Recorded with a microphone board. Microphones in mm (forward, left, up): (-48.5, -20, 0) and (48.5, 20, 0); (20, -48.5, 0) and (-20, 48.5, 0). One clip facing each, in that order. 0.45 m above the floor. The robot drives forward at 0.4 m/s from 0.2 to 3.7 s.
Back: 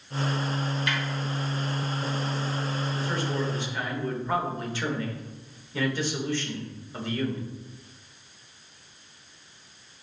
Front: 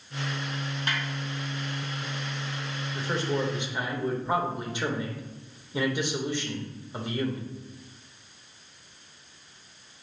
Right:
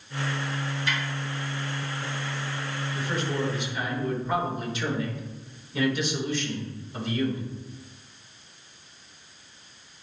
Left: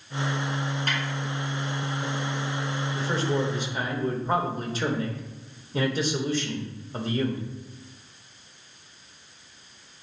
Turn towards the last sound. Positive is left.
turn(degrees=90)